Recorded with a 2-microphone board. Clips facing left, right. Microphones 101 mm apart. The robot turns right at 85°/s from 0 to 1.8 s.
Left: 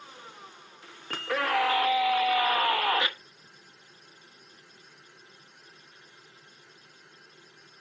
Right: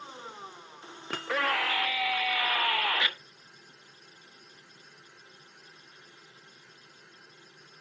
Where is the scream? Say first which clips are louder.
Left 2 dB; 20° right, 0.8 m; by 3.1 s 40° left, 0.8 m.